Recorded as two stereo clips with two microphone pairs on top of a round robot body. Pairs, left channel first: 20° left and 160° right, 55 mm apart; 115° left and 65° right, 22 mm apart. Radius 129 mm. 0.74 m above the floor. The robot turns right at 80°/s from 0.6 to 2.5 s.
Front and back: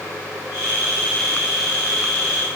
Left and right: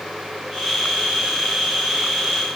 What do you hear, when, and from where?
Only background noise.